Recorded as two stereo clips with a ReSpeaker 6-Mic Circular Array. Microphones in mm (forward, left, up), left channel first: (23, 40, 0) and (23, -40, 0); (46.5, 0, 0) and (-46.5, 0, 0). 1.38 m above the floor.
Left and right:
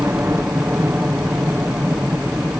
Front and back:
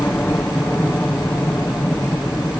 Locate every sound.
0.0 s a helicopter: 55° right; by 2.6 s 45° right